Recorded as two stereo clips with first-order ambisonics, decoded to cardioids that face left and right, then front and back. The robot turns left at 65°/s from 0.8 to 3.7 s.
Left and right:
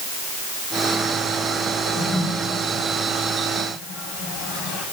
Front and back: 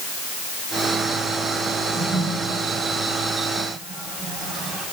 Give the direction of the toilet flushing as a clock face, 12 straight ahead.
5 o'clock.